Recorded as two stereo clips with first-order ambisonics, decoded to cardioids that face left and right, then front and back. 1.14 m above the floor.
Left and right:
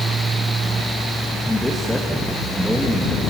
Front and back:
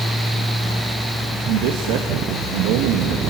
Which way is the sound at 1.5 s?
Straight behind.